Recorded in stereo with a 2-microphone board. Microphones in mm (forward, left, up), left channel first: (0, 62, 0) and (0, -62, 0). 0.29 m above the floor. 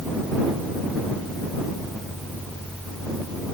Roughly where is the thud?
I don't hear a thud.